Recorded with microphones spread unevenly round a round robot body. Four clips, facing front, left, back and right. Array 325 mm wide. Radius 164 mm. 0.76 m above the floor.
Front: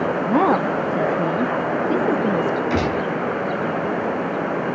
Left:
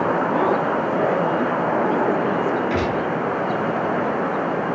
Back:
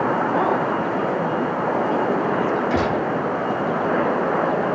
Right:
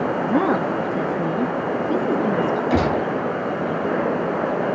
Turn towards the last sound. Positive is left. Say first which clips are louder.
# right 2 dB, back 1 dB
turn(degrees=-65)